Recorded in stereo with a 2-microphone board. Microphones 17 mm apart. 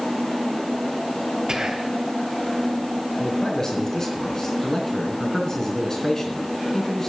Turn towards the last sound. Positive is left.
turn(degrees=40)  # may be behind; listen again after turning